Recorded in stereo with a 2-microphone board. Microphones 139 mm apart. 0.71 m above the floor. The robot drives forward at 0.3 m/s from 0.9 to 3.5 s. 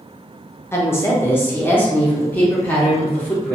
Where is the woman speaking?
20° left (ahead or behind), 0.7 m; by 3.6 s 10° left (ahead or behind), 1.3 m.